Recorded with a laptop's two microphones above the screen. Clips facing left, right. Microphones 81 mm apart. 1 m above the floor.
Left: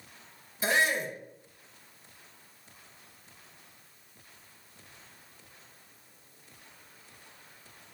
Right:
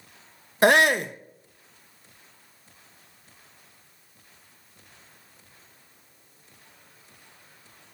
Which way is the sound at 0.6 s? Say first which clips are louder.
Right 9 dB; 70° right (ahead or behind).